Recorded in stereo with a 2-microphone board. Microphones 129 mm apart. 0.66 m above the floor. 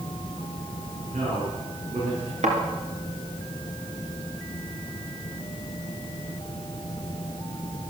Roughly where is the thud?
Right.